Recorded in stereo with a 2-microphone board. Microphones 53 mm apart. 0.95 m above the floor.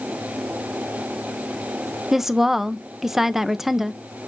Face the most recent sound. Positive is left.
turn(degrees=-5)  # may be behind; listen again after turning